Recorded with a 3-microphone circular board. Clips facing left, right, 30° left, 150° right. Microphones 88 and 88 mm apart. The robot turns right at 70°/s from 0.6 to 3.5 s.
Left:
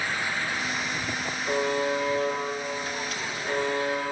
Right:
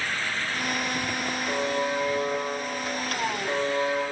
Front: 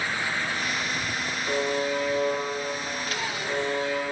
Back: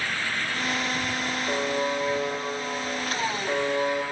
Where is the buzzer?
35° left, 1.4 m; by 4.0 s straight behind, 1.4 m.